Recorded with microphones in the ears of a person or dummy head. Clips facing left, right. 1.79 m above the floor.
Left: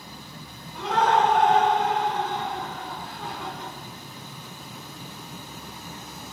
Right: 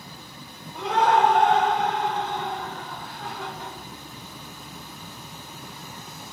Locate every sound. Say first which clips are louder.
0.7 s laughter: right 1 dB; 20° right (ahead or behind), 1.0 m; by 3.7 s 70° left (ahead or behind), 1.8 m